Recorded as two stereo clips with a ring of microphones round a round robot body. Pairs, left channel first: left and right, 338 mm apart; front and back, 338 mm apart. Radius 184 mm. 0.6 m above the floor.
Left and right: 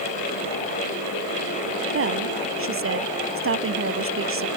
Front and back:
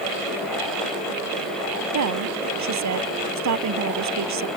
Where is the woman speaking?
140° right.